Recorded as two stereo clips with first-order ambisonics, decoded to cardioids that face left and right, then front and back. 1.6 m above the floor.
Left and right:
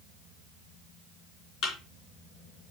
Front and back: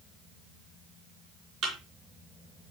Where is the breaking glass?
I don't hear breaking glass.